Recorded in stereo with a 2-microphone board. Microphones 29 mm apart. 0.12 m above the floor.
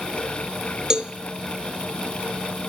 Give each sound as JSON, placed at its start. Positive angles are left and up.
{"t": 0.9, "sound": "a cowbell", "side_deg": -25, "distance_m": 0.6}